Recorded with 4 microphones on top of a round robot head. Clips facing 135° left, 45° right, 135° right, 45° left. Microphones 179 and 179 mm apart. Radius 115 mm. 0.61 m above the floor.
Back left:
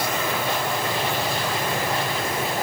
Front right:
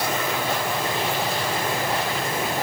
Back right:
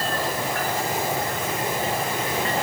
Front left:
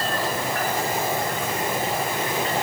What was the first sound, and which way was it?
Only background noise.